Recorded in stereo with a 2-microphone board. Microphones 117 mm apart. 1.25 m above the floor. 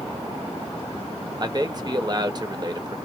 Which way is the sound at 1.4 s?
35° right (ahead or behind).